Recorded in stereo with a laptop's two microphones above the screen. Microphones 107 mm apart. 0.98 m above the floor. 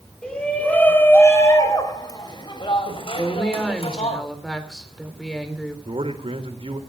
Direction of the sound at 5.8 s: 60° right (ahead or behind).